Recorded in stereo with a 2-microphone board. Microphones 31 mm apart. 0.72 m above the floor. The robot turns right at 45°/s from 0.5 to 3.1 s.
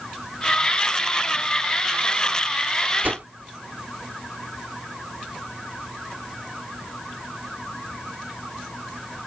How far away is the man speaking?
No man speaking in this recording.